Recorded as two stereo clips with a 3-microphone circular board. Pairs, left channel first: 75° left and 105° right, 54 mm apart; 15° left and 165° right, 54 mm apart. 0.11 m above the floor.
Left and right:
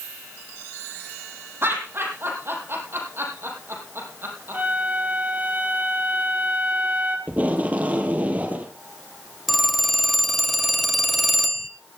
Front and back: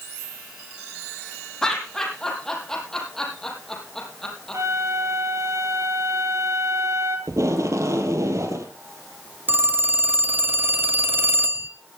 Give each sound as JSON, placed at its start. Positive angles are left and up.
{"t": 1.6, "sound": "laughter", "azimuth_deg": -65, "distance_m": 5.0}
{"t": 4.5, "sound": "a flute", "azimuth_deg": -160, "distance_m": 1.9}
{"t": 7.3, "sound": "tape being pulled", "azimuth_deg": -165, "distance_m": 1.8}
{"t": 9.5, "sound": "a phone ringing", "azimuth_deg": 165, "distance_m": 1.0}